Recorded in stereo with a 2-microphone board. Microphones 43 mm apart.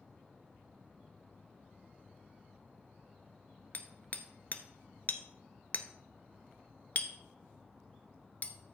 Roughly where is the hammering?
Left.